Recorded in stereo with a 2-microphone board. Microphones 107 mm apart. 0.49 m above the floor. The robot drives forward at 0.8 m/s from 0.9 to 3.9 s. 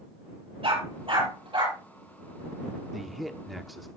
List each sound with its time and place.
0.6 s a dog barking: 60° right (ahead or behind), 6 m; by 1.8 s 50° right (ahead or behind), 6.5 m
2.9 s a man speaking: centre (ahead or behind), 0.9 m